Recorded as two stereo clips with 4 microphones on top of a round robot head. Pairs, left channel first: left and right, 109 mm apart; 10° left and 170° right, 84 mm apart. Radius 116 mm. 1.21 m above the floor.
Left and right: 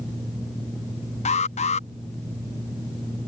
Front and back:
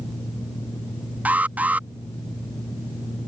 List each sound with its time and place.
1.2 s an alarm: 115° left